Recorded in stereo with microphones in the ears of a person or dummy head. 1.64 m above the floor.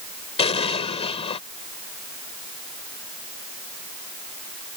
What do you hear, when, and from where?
0.4 s an explosion: 30° left (ahead or behind)